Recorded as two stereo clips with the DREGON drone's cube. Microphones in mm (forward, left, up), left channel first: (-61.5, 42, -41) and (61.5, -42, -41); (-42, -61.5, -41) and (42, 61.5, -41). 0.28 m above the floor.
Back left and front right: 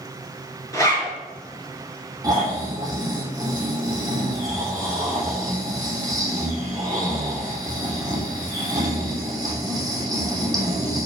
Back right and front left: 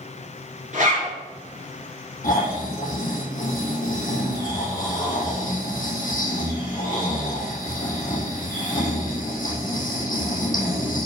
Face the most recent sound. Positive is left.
turn(degrees=-100)